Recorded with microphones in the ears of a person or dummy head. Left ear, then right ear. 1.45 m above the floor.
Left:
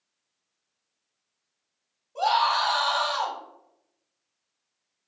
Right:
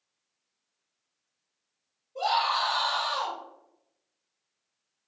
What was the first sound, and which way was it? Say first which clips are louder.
A scream: left 3 dB; 40° left (ahead or behind).